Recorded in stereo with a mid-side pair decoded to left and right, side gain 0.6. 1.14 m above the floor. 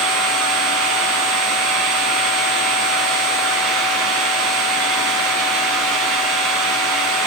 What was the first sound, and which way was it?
A machine running, 60° right.